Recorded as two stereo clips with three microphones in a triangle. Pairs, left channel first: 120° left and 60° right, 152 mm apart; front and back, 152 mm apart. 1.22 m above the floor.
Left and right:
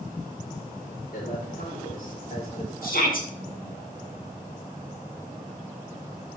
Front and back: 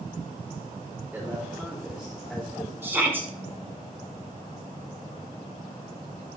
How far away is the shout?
About 2.5 m.